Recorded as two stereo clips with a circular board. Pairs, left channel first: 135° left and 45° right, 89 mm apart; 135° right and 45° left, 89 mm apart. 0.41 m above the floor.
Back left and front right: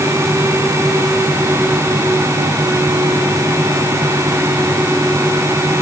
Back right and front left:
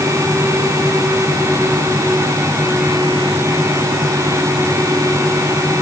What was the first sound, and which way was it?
Only background noise.